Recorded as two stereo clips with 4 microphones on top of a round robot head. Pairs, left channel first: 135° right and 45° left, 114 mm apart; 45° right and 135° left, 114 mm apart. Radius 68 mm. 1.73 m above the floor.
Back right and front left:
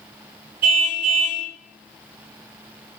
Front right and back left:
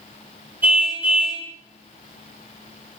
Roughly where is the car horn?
Ahead left.